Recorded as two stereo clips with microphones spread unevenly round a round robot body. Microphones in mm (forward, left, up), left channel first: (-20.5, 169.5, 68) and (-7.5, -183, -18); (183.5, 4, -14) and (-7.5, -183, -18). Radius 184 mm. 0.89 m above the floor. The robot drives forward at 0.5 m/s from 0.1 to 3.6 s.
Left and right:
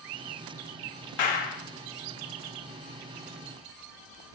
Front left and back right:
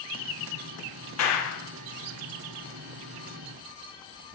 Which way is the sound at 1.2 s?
90° left.